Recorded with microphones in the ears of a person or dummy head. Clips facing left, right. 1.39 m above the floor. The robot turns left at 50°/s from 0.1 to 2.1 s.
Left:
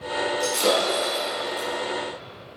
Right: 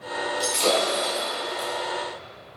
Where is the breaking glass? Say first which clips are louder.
Even; centre (ahead or behind), 4.5 m; by 1.7 s 65° left (ahead or behind), 4.5 m.